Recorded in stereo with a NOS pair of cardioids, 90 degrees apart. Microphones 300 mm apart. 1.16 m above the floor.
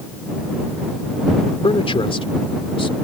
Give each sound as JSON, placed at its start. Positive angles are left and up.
{"t": 1.6, "sound": "a man speaking", "azimuth_deg": 15}